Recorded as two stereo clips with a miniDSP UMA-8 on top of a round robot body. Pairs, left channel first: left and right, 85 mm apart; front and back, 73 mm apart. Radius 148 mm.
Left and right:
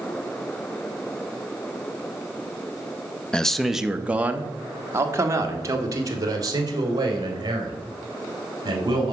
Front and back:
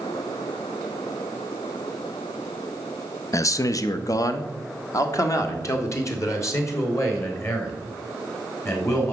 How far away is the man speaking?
About 0.8 m.